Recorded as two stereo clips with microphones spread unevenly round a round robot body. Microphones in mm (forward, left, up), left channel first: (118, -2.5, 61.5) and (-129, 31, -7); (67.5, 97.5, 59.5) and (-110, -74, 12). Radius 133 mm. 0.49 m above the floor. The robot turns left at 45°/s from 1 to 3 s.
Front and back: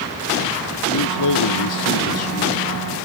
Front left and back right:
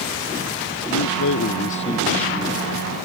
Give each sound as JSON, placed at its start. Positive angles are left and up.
{"t": 0.9, "sound": "a man speaking", "azimuth_deg": 15}